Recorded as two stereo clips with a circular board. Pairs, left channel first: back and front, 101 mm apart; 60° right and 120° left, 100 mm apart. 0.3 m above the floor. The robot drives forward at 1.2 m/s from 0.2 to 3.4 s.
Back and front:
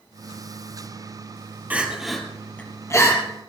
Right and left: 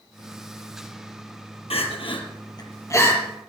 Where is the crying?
75° right, 1.9 m; by 3.2 s 125° right, 2 m.